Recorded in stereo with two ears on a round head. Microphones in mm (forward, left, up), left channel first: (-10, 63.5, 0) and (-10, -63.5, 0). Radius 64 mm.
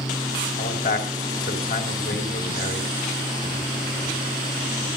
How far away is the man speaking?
About 6 m.